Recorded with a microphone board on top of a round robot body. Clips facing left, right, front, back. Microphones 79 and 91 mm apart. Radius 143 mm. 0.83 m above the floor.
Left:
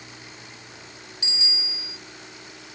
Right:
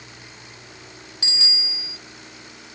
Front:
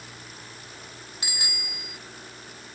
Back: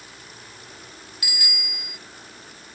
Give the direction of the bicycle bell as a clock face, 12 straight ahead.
2 o'clock.